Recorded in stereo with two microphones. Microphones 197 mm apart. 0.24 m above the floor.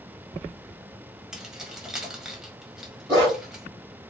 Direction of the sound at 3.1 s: 20° right (ahead or behind).